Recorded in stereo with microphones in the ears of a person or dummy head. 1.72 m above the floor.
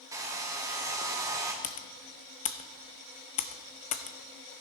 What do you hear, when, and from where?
0.1 s a hair dryer: 15° right (ahead or behind), 1.2 m
1.6 s typing on a keyboard: 35° left (ahead or behind), 0.8 m